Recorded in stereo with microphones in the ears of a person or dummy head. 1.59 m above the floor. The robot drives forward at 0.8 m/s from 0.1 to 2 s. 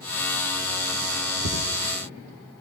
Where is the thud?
80° right, 6 m.